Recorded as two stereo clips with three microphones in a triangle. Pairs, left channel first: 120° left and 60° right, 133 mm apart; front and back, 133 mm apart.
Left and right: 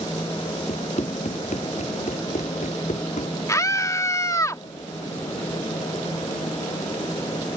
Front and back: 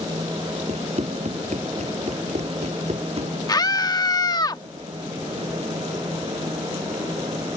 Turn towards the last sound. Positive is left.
turn(degrees=60)